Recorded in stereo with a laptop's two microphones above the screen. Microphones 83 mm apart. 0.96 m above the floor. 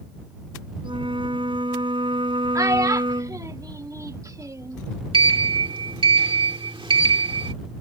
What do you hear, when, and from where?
0.8 s a flute: 80° right
2.5 s a child speaking: 40° right (ahead or behind)
5.1 s a sliding door: 85° right